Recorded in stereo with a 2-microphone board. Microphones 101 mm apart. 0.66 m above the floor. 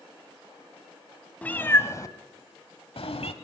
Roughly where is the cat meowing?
Centre.